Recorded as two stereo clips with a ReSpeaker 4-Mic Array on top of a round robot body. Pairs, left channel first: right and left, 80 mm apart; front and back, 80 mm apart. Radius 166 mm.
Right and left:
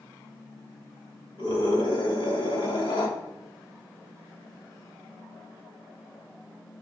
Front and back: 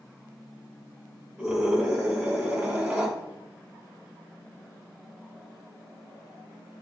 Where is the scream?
100° right, 5 m.